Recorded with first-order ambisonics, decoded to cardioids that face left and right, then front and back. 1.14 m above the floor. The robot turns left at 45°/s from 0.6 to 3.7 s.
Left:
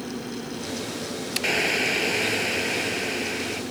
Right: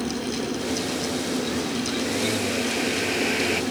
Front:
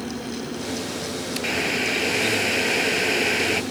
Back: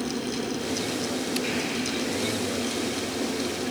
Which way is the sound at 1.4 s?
70° left.